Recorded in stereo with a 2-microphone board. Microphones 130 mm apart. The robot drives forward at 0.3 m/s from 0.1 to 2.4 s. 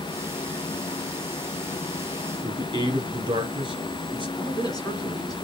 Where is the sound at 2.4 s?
35° right (ahead or behind), 1.4 m.